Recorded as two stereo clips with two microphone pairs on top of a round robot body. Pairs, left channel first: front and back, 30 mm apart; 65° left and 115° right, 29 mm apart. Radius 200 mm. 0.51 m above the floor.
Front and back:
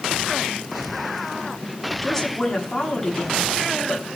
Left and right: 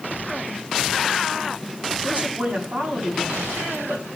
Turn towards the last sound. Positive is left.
turn(degrees=-80)